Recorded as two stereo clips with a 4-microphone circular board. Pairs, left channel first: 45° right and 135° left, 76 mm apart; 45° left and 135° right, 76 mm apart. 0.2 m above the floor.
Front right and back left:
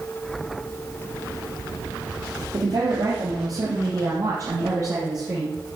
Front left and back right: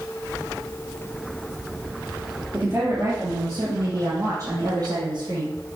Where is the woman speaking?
165° left, 4 m; by 5.5 s 170° right, 5 m.